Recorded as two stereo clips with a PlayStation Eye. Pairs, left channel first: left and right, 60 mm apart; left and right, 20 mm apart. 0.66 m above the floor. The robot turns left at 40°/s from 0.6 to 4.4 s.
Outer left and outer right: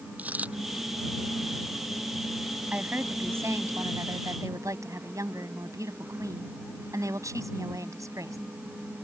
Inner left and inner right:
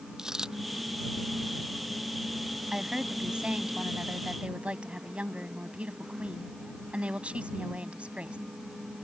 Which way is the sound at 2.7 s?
30° right.